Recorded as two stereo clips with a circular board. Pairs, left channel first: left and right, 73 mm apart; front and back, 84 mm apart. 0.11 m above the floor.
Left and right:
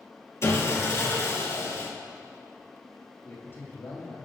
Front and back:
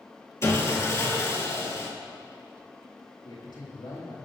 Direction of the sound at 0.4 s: 50° left.